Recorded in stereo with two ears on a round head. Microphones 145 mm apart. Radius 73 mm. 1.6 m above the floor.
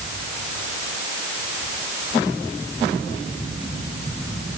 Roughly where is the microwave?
I don't hear a microwave.